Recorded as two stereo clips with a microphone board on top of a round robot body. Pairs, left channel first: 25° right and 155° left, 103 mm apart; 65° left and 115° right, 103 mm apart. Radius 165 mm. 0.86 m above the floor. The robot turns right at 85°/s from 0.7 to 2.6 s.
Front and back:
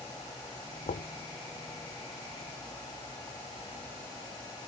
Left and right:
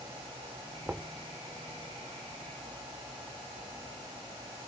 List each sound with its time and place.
0.9 s knocking: 40° right; by 1.1 s 20° right